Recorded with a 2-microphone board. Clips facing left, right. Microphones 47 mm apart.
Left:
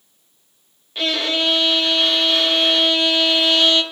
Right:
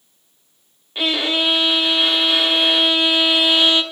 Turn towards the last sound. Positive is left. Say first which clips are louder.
# right 1 dB
turn(degrees=-15)  # may be behind; listen again after turning